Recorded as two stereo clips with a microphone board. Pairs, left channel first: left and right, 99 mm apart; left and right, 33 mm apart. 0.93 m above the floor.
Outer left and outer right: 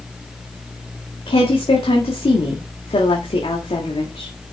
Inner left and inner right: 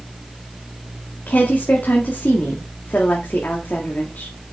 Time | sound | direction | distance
1.3 | a woman speaking | 70° left (ahead or behind) | 1.9 m